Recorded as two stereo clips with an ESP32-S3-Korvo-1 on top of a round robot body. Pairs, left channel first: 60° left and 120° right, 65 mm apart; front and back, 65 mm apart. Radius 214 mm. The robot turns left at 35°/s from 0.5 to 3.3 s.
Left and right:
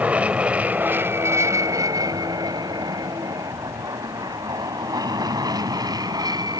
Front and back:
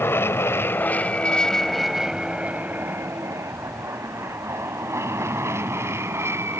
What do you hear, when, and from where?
0.0 s an aircraft: 50° right; by 6.6 s 130° right